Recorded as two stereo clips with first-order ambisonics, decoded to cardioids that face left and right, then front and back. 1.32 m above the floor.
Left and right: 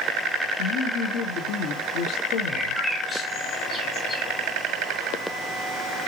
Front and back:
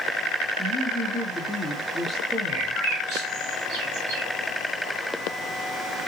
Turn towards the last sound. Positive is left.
turn(degrees=-170)